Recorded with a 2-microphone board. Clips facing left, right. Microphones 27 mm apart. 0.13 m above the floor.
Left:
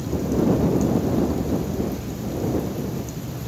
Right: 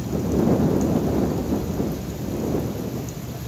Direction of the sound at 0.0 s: 20° left (ahead or behind).